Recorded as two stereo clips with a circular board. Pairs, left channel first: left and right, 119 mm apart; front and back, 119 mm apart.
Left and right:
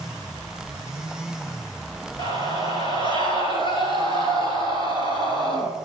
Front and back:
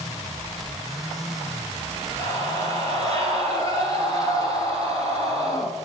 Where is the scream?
55° left, 2.5 m.